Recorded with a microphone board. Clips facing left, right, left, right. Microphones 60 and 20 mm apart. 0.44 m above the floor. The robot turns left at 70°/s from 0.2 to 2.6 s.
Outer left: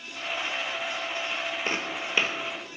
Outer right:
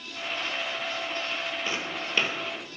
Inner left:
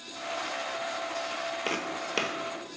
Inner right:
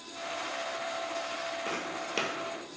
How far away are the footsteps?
About 0.6 m.